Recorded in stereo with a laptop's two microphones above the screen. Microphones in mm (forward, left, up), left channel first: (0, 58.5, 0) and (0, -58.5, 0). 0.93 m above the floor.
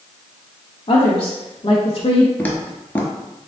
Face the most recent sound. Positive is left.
turn(degrees=15)  # may be behind; listen again after turning